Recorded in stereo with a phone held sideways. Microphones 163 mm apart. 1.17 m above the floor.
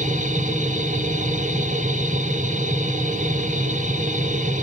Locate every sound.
0.0 s a machine running: 50° right (ahead or behind), 0.8 m